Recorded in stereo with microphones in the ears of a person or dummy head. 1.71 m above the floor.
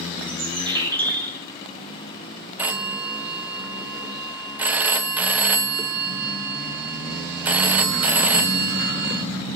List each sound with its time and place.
0.3 s a bird: 20° right (ahead or behind), 1.4 m
2.6 s a phone ringing: 10° right (ahead or behind), 0.8 m